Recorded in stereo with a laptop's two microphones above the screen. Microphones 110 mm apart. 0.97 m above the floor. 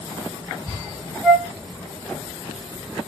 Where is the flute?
Centre (ahead or behind), 2 m.